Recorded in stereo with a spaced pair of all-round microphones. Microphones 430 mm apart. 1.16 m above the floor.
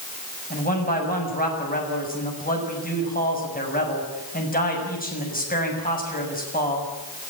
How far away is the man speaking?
About 6.5 m.